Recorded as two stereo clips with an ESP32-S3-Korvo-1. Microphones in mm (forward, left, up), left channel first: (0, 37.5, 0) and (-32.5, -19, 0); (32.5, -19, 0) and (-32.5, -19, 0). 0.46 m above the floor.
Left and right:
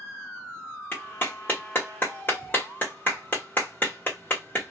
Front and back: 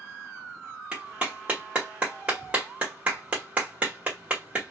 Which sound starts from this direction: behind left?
A clap, at 0.9 s.